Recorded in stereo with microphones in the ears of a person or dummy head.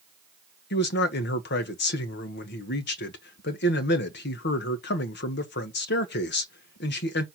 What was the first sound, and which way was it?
A man speaking, 55° left (ahead or behind).